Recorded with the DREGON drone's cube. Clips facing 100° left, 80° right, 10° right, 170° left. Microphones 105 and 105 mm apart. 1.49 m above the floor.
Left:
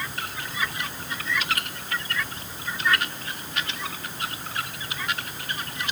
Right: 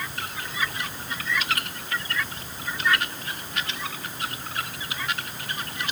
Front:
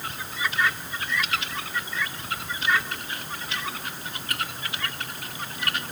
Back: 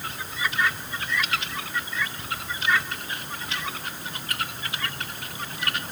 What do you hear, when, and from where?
Only background noise.